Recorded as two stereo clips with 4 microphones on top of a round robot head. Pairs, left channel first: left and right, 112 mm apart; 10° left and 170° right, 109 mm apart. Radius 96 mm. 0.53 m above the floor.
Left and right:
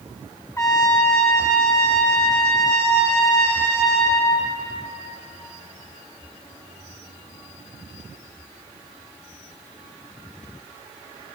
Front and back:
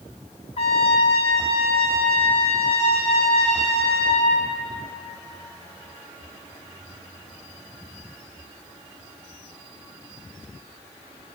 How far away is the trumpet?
About 1.9 m.